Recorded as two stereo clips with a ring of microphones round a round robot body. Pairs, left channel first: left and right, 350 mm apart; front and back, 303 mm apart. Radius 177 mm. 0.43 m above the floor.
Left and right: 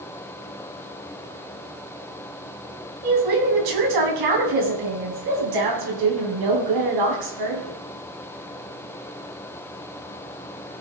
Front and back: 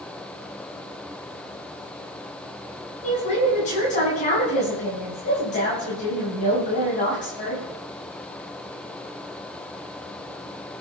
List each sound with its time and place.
3.0 s a woman speaking: 70° right, 4 m